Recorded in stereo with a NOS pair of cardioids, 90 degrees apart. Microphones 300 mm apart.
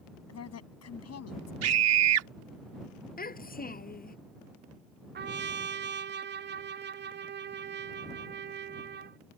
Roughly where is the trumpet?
Ahead right.